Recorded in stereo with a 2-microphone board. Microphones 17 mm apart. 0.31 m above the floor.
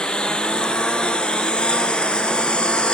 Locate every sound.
0.0 s a lawn mower: 75° left (ahead or behind); by 2.9 s 85° left